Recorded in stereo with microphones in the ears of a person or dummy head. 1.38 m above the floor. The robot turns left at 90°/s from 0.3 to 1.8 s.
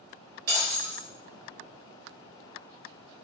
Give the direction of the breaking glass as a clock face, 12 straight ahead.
3 o'clock.